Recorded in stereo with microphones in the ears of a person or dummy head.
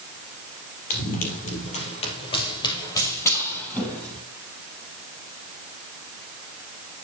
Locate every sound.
0.9 s running footsteps: 45° left (ahead or behind), 3 m; by 4.2 s 5° left (ahead or behind), 3.5 m